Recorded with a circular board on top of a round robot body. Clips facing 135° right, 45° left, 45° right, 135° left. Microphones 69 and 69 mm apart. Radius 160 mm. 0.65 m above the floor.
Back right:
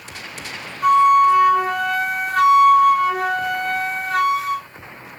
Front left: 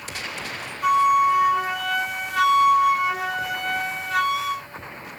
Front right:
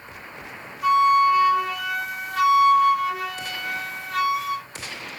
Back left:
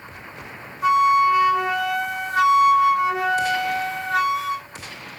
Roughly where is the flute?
Behind.